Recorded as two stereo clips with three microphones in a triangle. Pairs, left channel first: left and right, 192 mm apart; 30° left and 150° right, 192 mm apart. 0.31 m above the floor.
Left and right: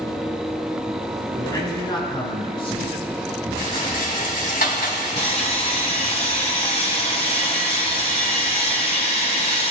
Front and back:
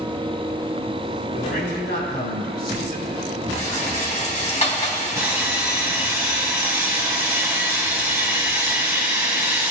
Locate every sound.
1.3 s a man speaking: 25° left, 3 m; by 3.2 s 40° left, 3.5 m
3.6 s a rattle: 70° left, 2.0 m
5.2 s sawing: 140° left, 1.4 m